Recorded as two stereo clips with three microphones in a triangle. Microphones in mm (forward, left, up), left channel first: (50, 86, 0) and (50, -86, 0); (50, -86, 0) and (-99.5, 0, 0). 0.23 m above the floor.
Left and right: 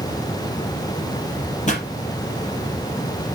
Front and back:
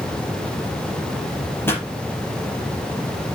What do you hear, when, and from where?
1.7 s a pop: 45° left, 4 m